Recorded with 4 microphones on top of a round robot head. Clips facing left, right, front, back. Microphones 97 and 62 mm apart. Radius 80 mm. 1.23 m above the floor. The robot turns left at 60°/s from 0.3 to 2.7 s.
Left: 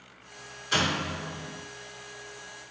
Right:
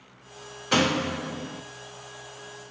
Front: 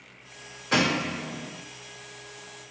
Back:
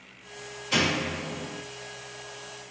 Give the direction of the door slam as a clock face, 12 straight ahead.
2 o'clock.